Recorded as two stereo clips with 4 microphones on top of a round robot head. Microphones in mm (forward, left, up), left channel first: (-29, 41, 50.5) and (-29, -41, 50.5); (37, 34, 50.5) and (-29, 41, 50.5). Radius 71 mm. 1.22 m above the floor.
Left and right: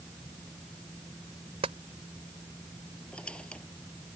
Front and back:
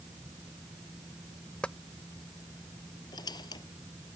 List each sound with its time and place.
1.6 s tapping: 85° right
3.1 s a squeak: 10° left